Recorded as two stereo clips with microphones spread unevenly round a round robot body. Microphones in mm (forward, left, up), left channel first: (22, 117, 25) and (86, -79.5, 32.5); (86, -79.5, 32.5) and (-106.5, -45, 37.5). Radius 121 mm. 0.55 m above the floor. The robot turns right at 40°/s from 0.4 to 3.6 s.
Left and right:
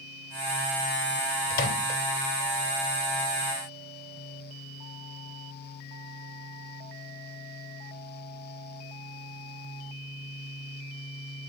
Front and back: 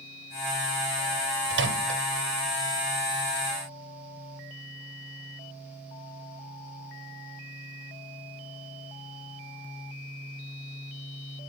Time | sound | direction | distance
1.5 | a microwave | 150° left | 2 m